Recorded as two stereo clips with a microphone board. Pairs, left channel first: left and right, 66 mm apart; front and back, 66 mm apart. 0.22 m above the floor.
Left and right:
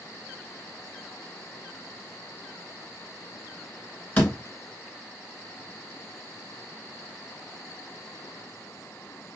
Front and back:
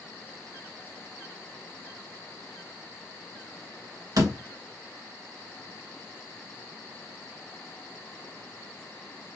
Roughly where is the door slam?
Behind left.